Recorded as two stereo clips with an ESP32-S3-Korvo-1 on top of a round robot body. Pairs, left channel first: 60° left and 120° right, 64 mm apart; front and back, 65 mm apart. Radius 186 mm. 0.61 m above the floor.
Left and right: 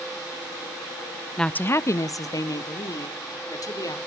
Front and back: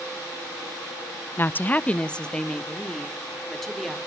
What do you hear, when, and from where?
1.4 s a woman speaking: 15° right, 0.6 m; by 4.0 s 85° left, 2.5 m